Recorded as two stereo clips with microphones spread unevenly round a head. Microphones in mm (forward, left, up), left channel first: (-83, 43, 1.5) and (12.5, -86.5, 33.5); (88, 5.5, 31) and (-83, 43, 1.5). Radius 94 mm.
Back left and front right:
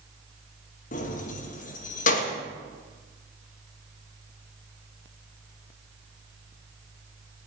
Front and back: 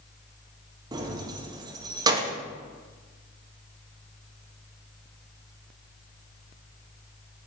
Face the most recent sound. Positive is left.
turn(degrees=100)